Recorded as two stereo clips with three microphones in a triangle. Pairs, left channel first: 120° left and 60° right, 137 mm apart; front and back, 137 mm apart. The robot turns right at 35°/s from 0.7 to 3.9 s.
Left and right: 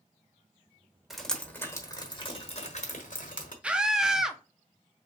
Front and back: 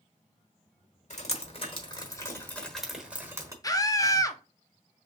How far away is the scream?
About 0.5 m.